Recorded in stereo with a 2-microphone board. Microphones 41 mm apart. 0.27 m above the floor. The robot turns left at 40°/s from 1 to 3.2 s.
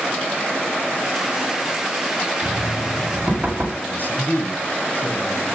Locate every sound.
2.4 s knocking: 40° right (ahead or behind), 1.5 m; by 3.7 s 30° right (ahead or behind), 1.5 m
3.8 s a man speaking: 45° left (ahead or behind), 2 m